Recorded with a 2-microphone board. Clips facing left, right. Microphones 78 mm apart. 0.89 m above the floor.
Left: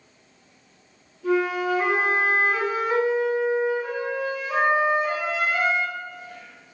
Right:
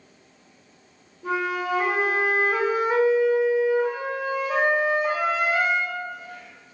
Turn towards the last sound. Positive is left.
turn(degrees=-30)  # may be behind; listen again after turning